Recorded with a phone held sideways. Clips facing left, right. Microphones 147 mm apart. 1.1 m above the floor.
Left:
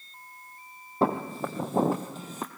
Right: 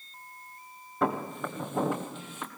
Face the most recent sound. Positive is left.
turn(degrees=40)  # may be behind; listen again after turning